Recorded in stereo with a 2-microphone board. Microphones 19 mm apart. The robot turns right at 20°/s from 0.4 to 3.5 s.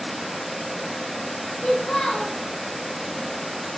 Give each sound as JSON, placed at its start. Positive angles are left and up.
{"t": 1.6, "sound": "a child speaking", "side_deg": 40, "distance_m": 0.6}